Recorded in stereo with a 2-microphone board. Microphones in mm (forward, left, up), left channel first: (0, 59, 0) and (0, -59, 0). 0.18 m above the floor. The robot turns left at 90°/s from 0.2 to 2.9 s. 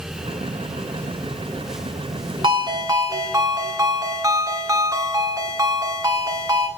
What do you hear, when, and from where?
2.4 s a ringtone: 95° right, 1.2 m; by 6.7 s 140° right, 1.2 m